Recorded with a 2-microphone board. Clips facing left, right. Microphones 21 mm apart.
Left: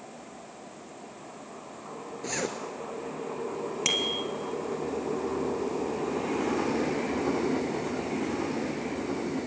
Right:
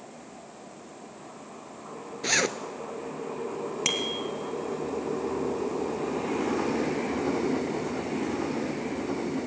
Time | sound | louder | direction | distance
2.2 | a zipper | right 7 dB | 55° right (ahead or behind) | 0.7 m
3.9 | a bicycle bell | left 2 dB | centre (ahead or behind) | 2 m